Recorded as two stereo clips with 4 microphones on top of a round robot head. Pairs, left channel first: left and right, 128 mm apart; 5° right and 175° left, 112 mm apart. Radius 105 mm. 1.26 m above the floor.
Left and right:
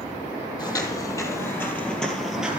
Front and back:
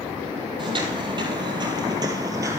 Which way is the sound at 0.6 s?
145° left.